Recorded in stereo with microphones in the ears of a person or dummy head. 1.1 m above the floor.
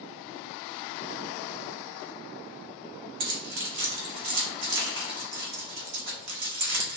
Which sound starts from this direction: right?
Keys jangling, at 3.2 s.